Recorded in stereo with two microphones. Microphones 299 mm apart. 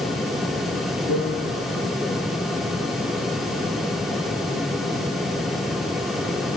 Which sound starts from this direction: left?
A piano, at 1.1 s.